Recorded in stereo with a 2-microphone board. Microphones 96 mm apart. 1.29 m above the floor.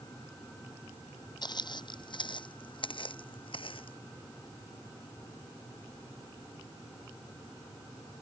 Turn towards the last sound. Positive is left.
turn(degrees=65)  # may be behind; listen again after turning